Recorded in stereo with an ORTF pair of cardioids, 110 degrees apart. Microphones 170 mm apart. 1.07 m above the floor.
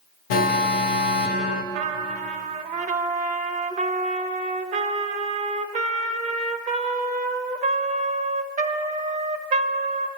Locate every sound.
0.3 s an alarm: 60° left, 0.8 m
1.7 s a trumpet: 50° right, 0.9 m